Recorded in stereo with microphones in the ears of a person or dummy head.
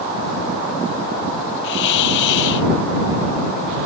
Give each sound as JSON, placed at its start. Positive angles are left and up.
{"t": 1.6, "sound": "a hiss", "side_deg": 70}